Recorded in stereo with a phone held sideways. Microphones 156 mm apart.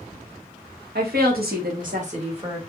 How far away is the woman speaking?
About 1.2 m.